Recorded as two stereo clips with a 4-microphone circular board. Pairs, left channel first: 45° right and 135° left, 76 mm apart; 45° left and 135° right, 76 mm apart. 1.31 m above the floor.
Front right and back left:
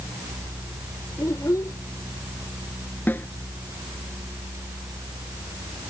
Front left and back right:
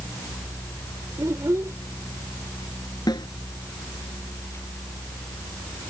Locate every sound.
1.2 s a child speaking: 85° right
3.1 s a snare drum: 20° left